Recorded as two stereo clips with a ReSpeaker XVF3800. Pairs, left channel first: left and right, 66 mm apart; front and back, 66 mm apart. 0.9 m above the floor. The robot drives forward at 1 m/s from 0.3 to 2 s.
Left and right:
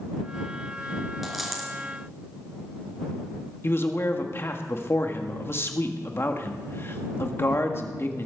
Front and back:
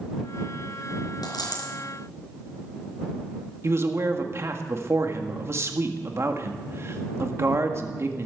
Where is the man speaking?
140° left, 1.6 m.